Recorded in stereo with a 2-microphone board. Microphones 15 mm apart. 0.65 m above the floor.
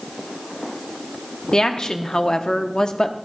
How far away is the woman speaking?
About 0.8 m.